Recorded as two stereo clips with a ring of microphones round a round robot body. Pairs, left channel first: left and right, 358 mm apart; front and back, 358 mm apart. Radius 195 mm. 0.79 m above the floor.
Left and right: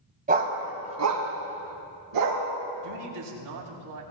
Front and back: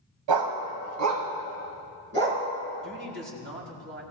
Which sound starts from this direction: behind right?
A man speaking, at 2.8 s.